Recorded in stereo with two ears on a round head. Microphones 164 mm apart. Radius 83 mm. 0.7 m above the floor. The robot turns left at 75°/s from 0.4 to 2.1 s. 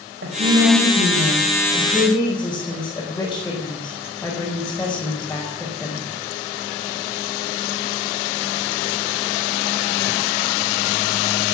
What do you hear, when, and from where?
0.2 s a woman speaking: 60° right, 4 m; by 6.0 s 170° left, 4 m